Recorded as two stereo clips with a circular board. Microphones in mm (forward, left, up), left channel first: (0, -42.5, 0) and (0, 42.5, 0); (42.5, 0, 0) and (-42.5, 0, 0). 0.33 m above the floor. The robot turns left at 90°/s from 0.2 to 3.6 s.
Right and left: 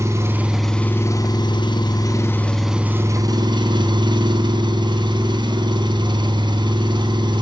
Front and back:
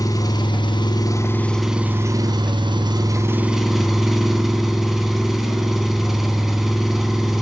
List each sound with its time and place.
0.0 s an engine running: 40° left, 2.5 m; by 7.4 s 95° left, 2.5 m